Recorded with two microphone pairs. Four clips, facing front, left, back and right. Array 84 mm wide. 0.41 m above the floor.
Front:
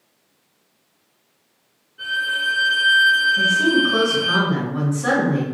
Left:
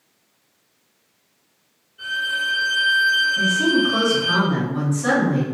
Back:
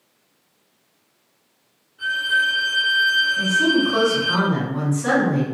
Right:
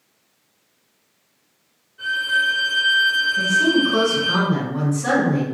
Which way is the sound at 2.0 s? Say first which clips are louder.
Right 4 dB, back 3 dB; 30° right.